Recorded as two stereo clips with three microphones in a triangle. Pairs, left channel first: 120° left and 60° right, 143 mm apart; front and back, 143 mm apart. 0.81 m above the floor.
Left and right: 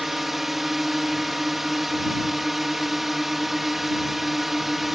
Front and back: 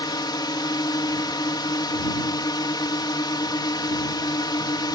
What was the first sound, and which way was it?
A drone, 25° left.